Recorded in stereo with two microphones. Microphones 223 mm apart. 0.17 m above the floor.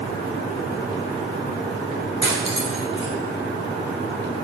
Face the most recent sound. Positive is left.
turn(degrees=25)  # may be behind; listen again after turning